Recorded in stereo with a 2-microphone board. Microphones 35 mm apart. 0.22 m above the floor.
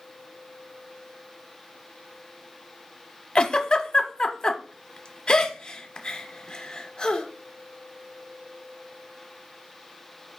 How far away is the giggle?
About 0.7 m.